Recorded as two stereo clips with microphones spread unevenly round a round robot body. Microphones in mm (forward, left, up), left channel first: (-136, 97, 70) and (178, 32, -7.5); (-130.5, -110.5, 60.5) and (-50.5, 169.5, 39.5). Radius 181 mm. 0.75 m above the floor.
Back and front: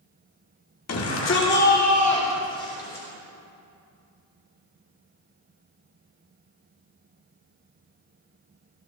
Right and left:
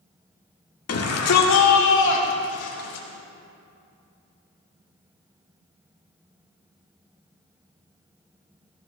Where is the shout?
140° right, 2.5 m; by 3.1 s 105° right, 3.5 m.